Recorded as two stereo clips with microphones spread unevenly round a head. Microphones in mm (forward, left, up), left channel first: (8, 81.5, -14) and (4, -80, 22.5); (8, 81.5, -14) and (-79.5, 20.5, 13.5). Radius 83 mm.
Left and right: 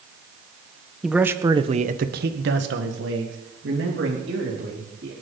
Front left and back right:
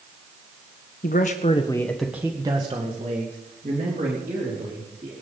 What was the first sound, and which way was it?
A man speaking, 5° right.